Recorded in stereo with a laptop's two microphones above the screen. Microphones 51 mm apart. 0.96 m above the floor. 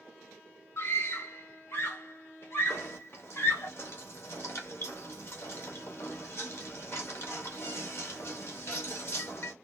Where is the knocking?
55° left (ahead or behind), 0.8 m.